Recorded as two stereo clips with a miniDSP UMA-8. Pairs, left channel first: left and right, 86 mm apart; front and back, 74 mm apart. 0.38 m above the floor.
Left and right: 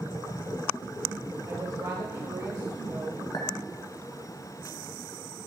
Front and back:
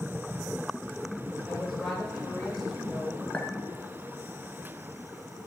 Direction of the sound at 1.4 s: 90° right.